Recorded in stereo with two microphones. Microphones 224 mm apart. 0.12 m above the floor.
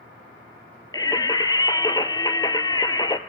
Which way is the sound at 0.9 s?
20° left (ahead or behind).